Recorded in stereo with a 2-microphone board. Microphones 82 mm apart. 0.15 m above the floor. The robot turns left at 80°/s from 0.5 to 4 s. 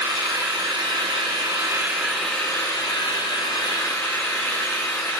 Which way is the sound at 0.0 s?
45° right.